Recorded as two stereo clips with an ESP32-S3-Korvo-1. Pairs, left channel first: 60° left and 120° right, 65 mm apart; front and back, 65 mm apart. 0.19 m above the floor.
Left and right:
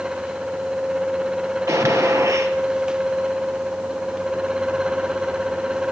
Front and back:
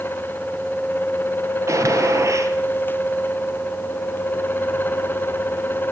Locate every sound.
1.7 s a gunshot: 145° right, 3 m